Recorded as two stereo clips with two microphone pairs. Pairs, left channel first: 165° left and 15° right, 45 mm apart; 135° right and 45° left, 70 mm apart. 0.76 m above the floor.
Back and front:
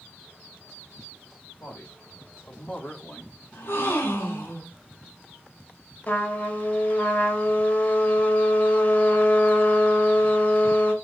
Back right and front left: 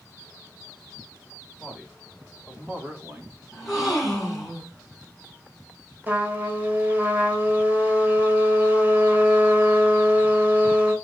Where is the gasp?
130° left, 4.5 m.